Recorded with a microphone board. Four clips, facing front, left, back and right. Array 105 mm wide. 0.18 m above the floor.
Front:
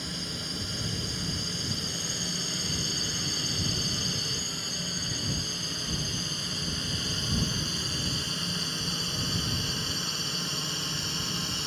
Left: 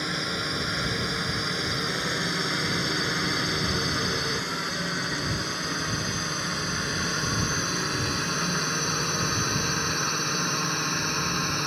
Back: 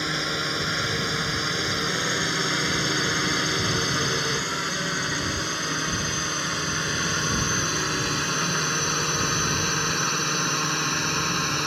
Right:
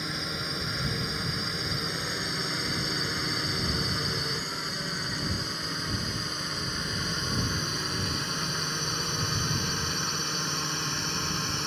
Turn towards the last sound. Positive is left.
turn(degrees=155)